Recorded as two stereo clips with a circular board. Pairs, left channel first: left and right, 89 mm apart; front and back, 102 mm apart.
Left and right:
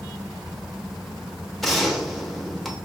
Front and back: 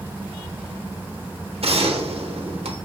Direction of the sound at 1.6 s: Straight behind.